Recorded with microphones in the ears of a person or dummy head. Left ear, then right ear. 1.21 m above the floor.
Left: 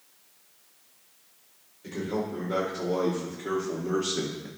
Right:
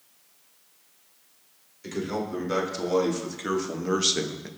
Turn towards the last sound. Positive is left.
turn(degrees=-35)  # may be behind; listen again after turning